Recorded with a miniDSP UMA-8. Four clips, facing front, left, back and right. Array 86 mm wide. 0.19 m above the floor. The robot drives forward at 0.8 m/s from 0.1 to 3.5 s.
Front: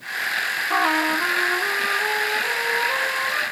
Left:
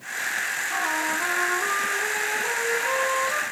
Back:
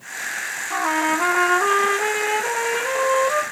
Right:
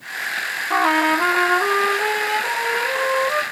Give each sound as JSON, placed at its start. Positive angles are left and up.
{"t": 0.7, "sound": "a trumpet", "azimuth_deg": -65, "distance_m": 0.5}